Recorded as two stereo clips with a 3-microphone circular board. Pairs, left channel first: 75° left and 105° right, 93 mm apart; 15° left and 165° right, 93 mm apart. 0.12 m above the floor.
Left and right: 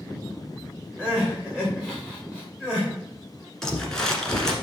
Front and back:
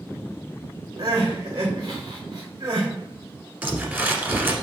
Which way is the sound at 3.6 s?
150° left.